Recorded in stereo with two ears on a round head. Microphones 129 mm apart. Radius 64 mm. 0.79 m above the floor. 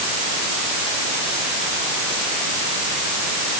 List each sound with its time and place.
Only background noise.